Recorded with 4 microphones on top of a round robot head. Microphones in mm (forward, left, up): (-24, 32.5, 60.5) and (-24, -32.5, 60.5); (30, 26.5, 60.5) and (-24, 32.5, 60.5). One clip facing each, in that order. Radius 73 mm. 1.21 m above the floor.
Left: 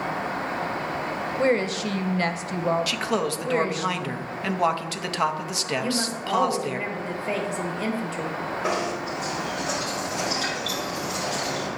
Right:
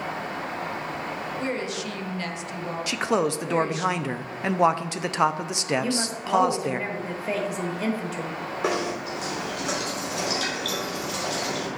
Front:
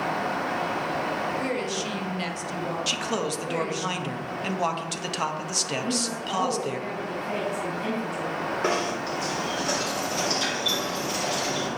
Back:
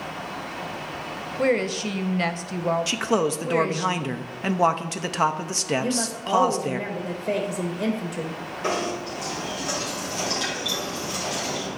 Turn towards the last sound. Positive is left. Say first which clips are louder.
# right 1 dB, back 2 dB
turn(degrees=-60)